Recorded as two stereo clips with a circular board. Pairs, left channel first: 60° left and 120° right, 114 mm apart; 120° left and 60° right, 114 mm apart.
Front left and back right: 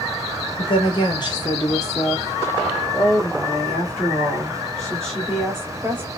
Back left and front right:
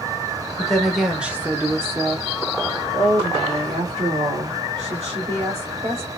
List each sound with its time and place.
0.6 s a woman speaking: 35° left, 1.2 m; by 6.1 s 25° right, 3 m